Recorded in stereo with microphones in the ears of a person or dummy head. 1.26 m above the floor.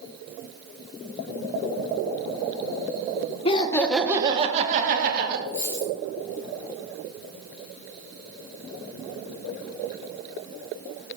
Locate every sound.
3.5 s laughter: 35° left (ahead or behind), 1.3 m; by 5.4 s 55° right (ahead or behind), 2.5 m
5.5 s a dropped coin: 10° left (ahead or behind), 2.5 m